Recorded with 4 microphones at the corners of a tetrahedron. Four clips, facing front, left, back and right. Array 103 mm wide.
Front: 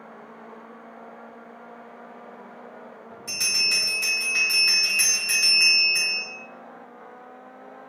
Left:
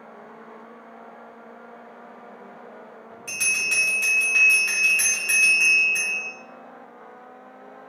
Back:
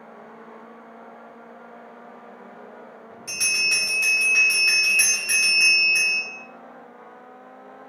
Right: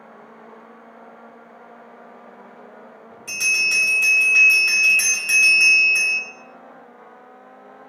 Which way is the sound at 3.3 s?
170° right.